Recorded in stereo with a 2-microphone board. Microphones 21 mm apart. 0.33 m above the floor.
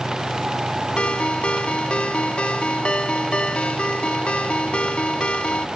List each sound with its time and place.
1.0 s a ringtone: 70° left (ahead or behind)